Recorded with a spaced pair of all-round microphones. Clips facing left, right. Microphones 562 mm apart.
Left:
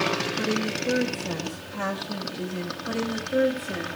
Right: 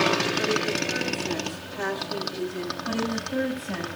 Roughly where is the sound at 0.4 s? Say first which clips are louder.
Right 1 dB; left.